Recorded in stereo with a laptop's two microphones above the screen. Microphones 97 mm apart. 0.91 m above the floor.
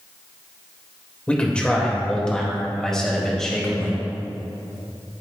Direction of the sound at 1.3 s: 10° left (ahead or behind).